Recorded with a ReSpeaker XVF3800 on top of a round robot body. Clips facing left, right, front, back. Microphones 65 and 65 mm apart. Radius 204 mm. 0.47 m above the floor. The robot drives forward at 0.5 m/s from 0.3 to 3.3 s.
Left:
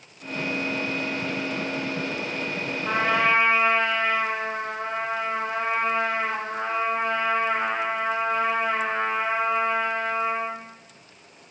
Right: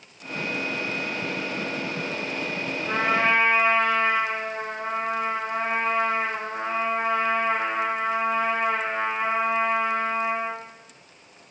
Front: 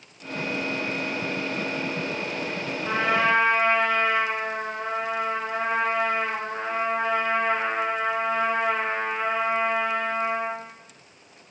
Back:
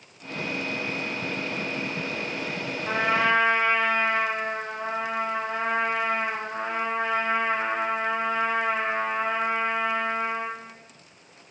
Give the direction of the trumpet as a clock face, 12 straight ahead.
9 o'clock.